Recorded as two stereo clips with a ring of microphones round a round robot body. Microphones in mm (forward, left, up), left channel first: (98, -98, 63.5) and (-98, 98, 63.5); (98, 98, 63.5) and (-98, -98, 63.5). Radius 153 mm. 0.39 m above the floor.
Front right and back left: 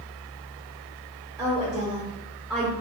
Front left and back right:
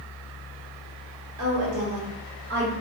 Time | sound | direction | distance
1.4 | a woman speaking | 135° right | 1.8 m